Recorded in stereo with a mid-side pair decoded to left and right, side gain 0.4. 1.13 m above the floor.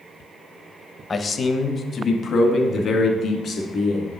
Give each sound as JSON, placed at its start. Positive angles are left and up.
{"t": 1.1, "sound": "a man speaking", "azimuth_deg": 35, "distance_m": 0.8}